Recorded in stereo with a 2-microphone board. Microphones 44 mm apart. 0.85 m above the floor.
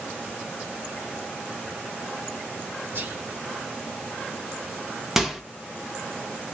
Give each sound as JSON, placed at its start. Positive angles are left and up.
{"t": 3.0, "sound": "whispering", "side_deg": -65, "distance_m": 1.3}
{"t": 5.2, "sound": "a microwave", "side_deg": -10, "distance_m": 0.8}